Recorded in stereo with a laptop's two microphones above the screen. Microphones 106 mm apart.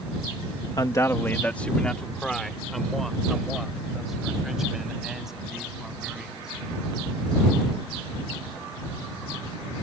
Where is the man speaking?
40° left (ahead or behind); by 6.5 s 5° right (ahead or behind).